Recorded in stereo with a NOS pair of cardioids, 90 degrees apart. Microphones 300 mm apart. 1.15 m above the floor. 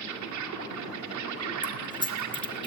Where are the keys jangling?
15° left, 2.5 m.